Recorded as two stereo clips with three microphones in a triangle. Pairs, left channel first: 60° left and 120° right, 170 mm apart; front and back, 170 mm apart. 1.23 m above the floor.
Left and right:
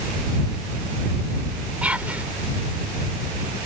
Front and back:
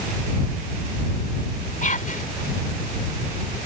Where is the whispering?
40° right.